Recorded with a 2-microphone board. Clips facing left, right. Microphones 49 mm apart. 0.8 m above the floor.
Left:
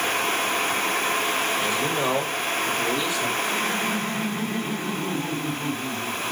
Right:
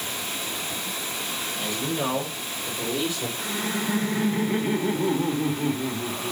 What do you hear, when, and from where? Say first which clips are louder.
1.6 s a man speaking: left 4 dB; 25° left (ahead or behind), 3 m; by 3.3 s 10° right (ahead or behind), 3 m
3.4 s laughter: left 4 dB; 35° right (ahead or behind), 1.9 m